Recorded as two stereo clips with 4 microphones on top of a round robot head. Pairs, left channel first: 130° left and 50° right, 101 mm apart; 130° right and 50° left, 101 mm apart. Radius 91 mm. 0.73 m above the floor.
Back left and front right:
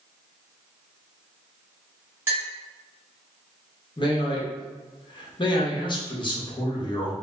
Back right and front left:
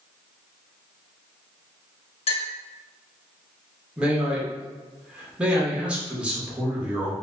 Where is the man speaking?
125° left, 0.9 m.